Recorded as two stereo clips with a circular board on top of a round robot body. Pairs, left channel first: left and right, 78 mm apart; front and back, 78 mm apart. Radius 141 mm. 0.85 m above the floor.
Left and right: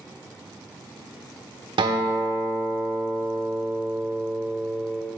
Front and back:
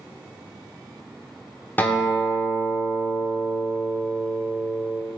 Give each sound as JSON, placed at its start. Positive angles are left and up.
{"t": 1.8, "sound": "a guitar", "azimuth_deg": -70, "distance_m": 1.0}